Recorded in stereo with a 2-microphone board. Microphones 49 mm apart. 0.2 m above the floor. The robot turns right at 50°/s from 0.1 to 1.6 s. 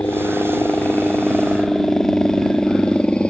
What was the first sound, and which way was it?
A helicopter, 60° left (ahead or behind).